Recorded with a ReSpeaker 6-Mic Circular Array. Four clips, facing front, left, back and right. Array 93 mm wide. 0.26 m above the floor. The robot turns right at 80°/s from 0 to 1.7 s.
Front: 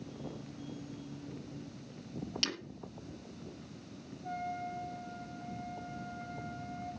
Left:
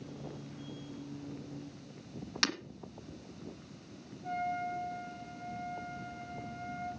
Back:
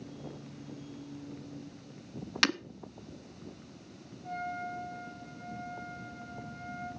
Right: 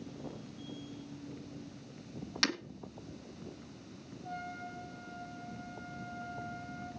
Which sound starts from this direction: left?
A trumpet, at 4.2 s.